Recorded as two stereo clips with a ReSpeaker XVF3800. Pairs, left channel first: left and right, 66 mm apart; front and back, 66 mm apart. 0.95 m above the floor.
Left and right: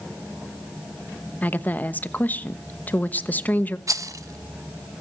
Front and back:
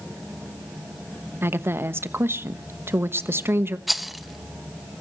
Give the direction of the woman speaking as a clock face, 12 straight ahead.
7 o'clock.